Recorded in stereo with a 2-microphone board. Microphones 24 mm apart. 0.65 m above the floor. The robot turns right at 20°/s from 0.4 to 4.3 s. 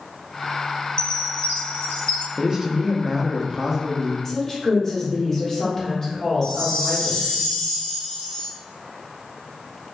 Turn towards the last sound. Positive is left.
turn(degrees=35)  # may be behind; listen again after turning